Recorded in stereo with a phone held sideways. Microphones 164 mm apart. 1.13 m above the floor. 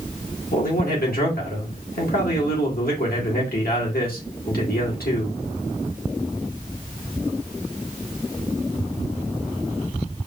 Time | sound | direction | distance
0.5 | a man speaking | 80° left | 1.8 m